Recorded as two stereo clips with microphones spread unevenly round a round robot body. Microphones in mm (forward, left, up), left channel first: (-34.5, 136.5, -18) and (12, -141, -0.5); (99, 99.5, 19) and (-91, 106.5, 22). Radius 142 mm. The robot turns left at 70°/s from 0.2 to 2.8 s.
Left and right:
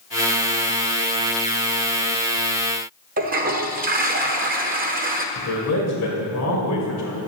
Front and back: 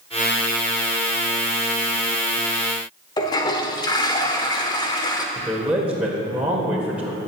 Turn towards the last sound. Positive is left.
turn(degrees=95)